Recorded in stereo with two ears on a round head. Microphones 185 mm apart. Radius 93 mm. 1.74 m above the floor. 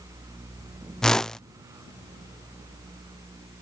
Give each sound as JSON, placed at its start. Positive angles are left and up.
{"t": 1.0, "sound": "a whoosh", "side_deg": 5}